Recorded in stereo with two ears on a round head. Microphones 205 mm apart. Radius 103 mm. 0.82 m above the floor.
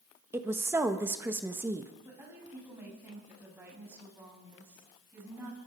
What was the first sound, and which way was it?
A woman speaking, 10° right (ahead or behind).